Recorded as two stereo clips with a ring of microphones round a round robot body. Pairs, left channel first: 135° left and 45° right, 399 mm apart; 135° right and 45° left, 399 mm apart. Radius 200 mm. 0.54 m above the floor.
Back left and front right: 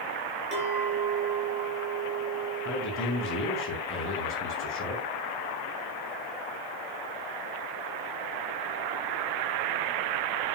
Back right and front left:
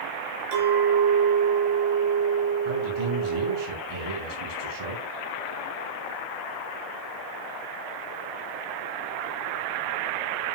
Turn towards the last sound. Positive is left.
turn(degrees=75)